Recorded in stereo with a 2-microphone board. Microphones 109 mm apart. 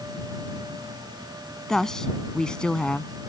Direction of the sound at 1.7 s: 5° left (ahead or behind).